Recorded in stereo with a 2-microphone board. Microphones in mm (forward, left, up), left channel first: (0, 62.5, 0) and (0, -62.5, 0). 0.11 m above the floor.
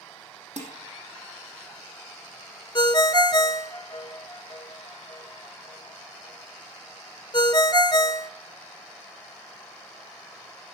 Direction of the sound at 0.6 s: 65° right (ahead or behind).